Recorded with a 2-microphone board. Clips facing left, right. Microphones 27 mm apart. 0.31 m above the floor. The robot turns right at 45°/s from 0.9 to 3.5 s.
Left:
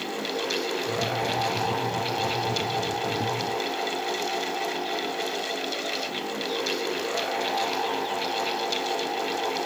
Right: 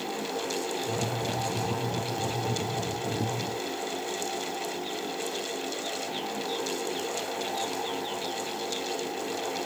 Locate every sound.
Only background noise.